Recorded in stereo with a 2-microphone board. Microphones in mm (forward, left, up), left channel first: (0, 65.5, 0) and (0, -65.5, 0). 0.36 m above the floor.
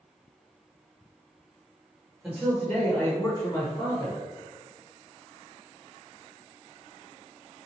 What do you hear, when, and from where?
2.2 s a man speaking: 5° right (ahead or behind), 1.0 m; by 4.2 s 35° left (ahead or behind), 1.2 m